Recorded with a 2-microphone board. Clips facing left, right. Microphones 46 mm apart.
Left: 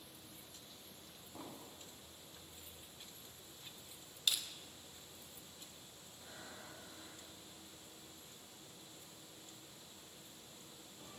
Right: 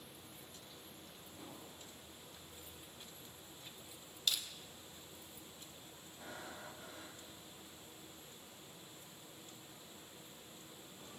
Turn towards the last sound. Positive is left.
turn(degrees=-85)